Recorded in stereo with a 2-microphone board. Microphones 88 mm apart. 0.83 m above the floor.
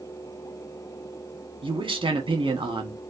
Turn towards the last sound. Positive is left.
turn(degrees=-75)  # may be behind; listen again after turning